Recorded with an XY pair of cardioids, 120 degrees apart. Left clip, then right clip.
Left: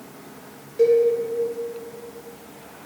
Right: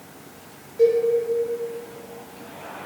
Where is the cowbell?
40° left, 0.7 m.